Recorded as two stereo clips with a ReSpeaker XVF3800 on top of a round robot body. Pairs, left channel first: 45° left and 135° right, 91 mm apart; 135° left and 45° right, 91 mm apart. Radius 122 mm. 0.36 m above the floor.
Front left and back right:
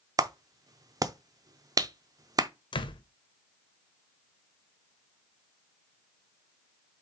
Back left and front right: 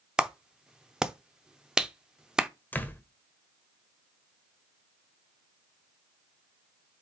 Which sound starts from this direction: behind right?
A clap, at 0.2 s.